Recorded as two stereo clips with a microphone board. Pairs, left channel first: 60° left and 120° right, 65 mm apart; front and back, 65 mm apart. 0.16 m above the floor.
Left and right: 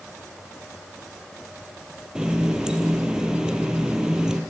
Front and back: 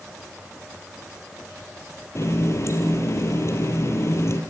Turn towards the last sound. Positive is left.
turn(degrees=-40)